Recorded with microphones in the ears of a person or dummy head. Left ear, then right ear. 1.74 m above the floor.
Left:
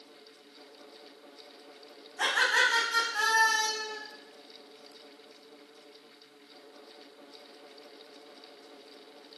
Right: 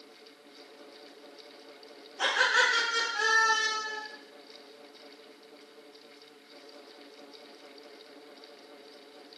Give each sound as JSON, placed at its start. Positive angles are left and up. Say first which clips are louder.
{"t": 2.2, "sound": "laughter", "louder": "even", "side_deg": 40, "distance_m": 3.5}